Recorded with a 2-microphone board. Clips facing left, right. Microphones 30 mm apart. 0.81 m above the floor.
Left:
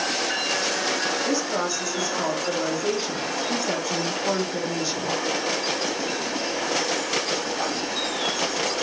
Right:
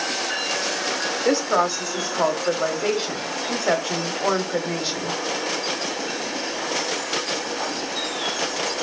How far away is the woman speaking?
About 1.3 m.